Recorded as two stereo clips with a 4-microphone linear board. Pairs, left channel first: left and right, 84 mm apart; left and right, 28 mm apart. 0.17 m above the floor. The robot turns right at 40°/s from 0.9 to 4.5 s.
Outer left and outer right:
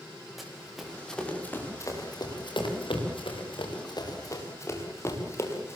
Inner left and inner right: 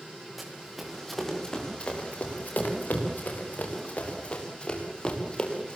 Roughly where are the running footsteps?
Centre.